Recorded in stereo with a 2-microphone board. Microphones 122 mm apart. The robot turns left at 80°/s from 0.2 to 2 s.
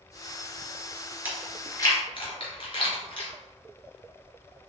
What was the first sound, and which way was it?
Chewing, 15° right (ahead or behind).